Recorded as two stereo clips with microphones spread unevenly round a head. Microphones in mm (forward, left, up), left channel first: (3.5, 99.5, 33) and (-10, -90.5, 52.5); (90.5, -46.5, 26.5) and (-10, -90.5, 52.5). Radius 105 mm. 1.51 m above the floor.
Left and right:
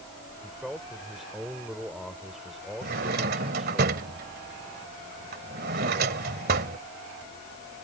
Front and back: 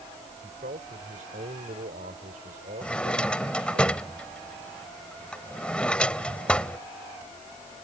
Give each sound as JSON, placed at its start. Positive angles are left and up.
{"t": 0.4, "sound": "a man speaking", "azimuth_deg": 175}
{"t": 2.8, "sound": "a drawer", "azimuth_deg": -65}